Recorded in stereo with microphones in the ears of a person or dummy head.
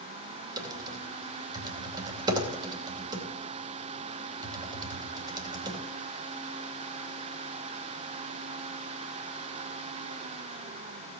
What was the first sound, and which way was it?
Typing on a keyboard, 25° right (ahead or behind).